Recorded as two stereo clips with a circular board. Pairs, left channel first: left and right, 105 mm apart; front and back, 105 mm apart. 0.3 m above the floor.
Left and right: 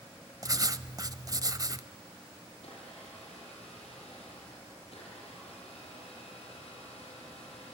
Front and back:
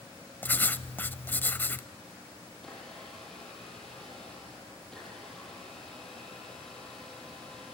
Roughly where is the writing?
Ahead right.